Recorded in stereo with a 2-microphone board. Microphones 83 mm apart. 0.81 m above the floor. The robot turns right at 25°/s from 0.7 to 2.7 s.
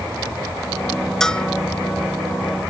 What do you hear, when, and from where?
1.2 s a bell: 5° left (ahead or behind); by 1.5 s 15° left (ahead or behind)